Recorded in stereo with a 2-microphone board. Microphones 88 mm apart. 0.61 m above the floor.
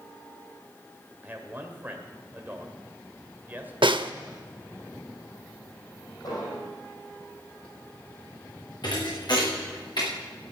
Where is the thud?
60° left (ahead or behind), 5 m.